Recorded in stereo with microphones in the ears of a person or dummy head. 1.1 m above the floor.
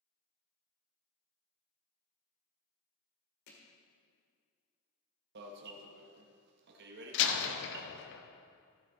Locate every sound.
3.5 s hammering: 55° left (ahead or behind), 1.8 m
5.3 s an alarm: 60° right (ahead or behind), 1.1 m
7.1 s a door slam: 65° left (ahead or behind), 1.0 m